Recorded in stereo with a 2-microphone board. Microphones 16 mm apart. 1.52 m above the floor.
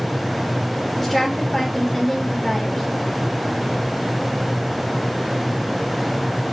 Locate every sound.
1.0 s a woman speaking: 25° left (ahead or behind), 2.5 m